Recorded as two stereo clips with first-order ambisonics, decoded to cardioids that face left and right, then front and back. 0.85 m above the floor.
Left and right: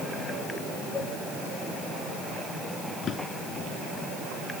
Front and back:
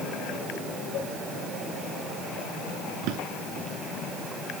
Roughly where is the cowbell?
Ahead.